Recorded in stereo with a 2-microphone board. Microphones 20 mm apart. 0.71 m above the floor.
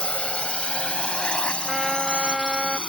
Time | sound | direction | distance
0.0 | a drone | 75° left (ahead or behind) | ?
1.6 | a trumpet | 15° right (ahead or behind) | ?